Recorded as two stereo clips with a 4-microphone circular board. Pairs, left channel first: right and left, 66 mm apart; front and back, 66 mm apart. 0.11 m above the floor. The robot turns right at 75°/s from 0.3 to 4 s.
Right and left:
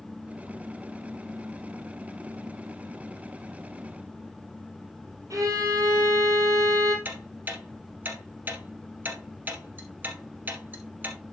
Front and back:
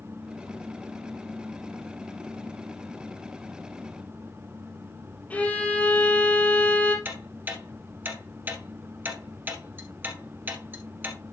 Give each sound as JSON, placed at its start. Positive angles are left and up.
{"t": 5.3, "sound": "a violin", "azimuth_deg": 65, "distance_m": 3.5}
{"t": 7.0, "sound": "ticking", "azimuth_deg": 135, "distance_m": 1.7}